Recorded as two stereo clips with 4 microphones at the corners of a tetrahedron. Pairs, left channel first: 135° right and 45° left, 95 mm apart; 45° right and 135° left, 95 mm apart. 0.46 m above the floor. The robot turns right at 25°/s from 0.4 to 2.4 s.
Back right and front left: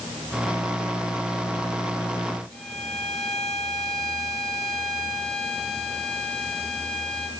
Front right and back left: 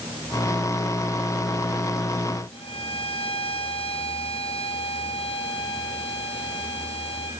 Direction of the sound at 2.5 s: 50° right.